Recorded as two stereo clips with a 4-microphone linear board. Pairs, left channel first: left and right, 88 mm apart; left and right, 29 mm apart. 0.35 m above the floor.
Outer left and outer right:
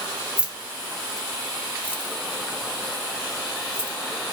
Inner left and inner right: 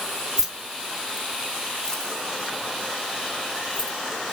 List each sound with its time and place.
0.4 s keys jangling: 15° right (ahead or behind), 0.7 m; by 4.0 s 30° left (ahead or behind), 1.5 m